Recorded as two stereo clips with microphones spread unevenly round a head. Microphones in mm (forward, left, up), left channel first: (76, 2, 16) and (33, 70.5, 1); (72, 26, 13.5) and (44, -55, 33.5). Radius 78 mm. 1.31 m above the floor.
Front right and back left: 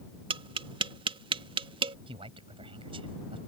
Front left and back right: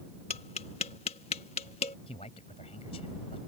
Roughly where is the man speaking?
Behind left.